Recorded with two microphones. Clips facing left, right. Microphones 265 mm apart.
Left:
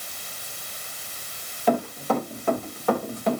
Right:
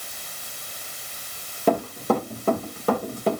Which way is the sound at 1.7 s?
50° right (ahead or behind).